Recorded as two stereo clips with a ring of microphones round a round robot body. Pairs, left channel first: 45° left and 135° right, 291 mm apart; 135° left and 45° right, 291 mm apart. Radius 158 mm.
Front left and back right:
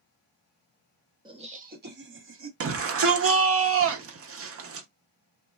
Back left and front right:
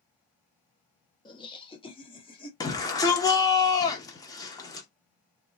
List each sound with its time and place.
1.2 s laughter: straight behind, 0.8 m; by 2.5 s 155° right, 1.2 m
2.6 s a shout: 150° right, 0.9 m